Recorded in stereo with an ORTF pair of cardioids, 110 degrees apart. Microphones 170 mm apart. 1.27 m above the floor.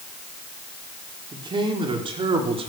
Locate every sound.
1.3 s a man speaking: 25° right, 4.5 m; by 2.7 s 35° right, 3.5 m